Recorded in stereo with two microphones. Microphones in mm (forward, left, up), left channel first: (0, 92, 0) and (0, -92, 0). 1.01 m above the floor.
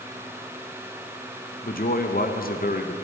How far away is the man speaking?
About 0.8 m.